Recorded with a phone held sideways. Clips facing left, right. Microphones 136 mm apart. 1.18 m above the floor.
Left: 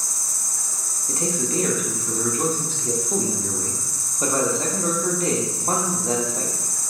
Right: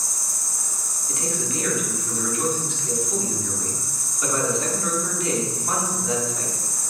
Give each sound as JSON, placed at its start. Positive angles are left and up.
{"t": 0.0, "sound": "an insect", "side_deg": -15, "distance_m": 1.0}
{"t": 1.1, "sound": "a man speaking", "side_deg": 35, "distance_m": 0.8}